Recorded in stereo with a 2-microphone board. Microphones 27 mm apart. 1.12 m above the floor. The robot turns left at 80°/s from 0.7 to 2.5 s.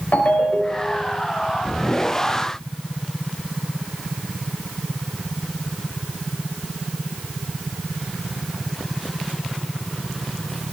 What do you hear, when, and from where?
0.1 s a ringtone: 105° left, 4 m; by 1.1 s 70° left, 4 m